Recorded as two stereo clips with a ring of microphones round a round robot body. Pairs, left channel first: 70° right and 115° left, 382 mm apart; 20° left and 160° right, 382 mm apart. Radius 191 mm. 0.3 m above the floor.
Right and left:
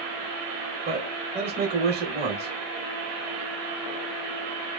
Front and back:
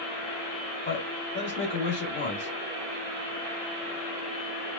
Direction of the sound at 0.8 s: 65° left.